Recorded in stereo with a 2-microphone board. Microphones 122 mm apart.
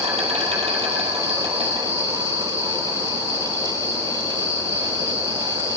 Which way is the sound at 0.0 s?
55° right (ahead or behind).